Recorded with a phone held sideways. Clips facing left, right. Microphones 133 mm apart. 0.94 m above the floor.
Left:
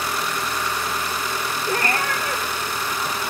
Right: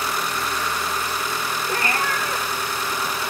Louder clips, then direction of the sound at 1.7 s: Left 2 dB; 40° left (ahead or behind).